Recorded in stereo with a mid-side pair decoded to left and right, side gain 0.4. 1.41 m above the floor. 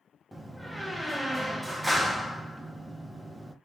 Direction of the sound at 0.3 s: 10° right.